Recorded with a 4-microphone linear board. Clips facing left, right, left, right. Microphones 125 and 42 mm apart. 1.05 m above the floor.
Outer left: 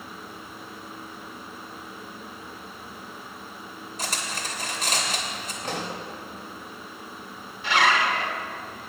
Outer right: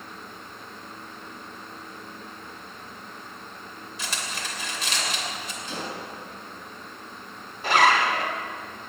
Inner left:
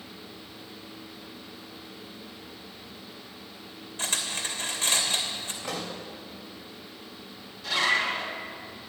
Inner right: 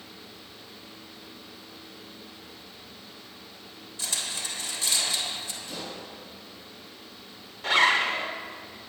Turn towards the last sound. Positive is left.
turn(degrees=-45)  # may be behind; listen again after turning